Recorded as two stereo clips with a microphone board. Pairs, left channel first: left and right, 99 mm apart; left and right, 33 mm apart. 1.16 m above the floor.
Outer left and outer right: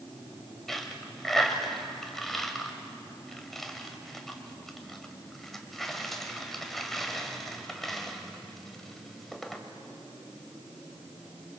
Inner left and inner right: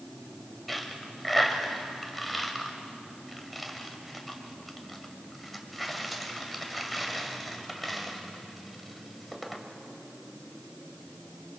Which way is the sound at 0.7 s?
5° left (ahead or behind).